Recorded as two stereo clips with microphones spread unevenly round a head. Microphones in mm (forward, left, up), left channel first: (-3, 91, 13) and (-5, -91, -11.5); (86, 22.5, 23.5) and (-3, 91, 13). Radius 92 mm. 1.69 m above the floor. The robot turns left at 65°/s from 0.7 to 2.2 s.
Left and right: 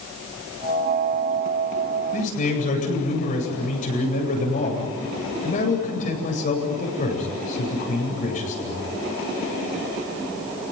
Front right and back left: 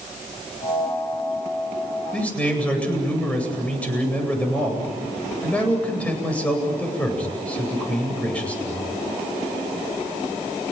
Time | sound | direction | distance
2.1 | a man speaking | 45° left | 9 m